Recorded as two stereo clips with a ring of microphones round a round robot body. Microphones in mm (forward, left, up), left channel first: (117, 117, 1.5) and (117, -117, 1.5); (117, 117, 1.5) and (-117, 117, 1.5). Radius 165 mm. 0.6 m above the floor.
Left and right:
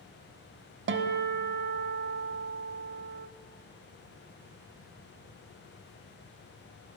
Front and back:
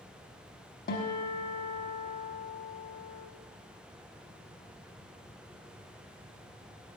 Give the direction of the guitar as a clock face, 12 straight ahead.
2 o'clock.